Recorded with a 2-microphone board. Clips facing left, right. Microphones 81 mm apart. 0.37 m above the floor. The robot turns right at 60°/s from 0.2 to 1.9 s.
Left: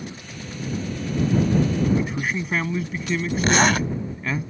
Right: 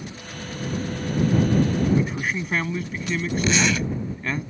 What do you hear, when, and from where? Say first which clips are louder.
1.9 s a man speaking: even; centre (ahead or behind)
3.4 s a zipper: left 5 dB; 50° left (ahead or behind)